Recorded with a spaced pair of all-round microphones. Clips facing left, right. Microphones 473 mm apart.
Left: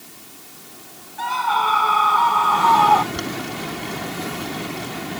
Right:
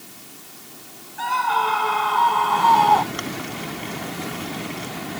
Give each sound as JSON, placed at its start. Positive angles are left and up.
{"t": 1.2, "sound": "a scream", "side_deg": 20}
{"t": 3.1, "sound": "boiling", "side_deg": 60}